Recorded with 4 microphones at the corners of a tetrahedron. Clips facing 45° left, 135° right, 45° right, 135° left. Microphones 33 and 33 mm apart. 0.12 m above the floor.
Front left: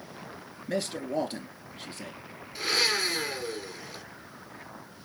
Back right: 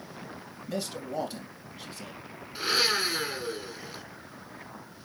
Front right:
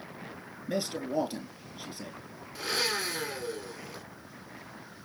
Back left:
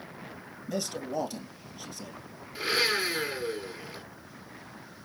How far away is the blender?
About 1.7 m.